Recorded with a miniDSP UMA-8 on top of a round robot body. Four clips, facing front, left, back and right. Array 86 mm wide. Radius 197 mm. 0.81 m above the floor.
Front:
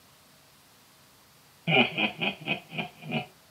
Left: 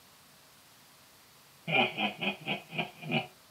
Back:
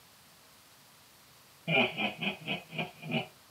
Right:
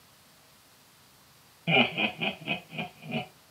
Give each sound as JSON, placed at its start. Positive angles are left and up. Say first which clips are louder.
{"t": 1.7, "sound": "laughter", "louder": "right 4 dB, front 5 dB", "azimuth_deg": -45, "distance_m": 1.1}